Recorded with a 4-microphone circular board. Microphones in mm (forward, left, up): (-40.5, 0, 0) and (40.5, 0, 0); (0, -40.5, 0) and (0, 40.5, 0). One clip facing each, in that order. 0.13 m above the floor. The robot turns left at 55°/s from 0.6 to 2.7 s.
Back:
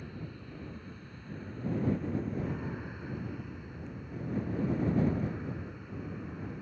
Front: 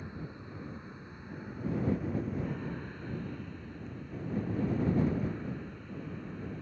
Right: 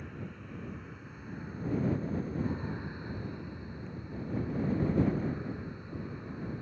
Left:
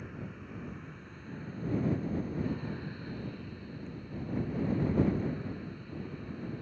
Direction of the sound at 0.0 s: 5° left.